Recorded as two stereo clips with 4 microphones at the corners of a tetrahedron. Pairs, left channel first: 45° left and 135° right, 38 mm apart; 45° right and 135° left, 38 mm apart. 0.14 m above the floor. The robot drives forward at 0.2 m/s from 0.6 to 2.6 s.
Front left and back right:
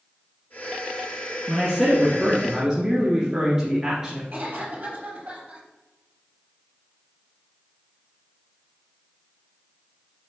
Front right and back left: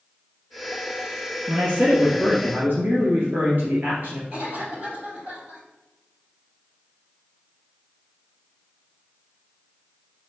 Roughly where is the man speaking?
Behind left.